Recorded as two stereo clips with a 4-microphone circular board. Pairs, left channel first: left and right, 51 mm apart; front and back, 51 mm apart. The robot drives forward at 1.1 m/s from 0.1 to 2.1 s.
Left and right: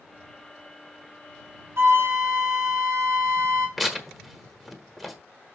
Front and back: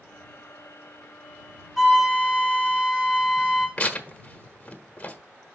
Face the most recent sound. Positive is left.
turn(degrees=0)